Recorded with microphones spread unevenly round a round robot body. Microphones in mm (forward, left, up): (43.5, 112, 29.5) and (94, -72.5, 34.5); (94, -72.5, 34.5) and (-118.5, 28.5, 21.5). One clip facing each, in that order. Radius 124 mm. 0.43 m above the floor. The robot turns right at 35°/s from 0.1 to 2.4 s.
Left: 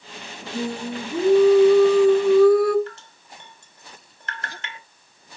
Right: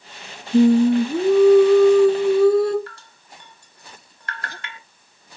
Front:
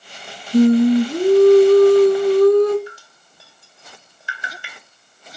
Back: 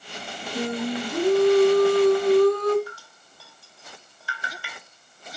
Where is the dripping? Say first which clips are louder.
Left 5 dB, front 3 dB; 45° left, 1.8 m.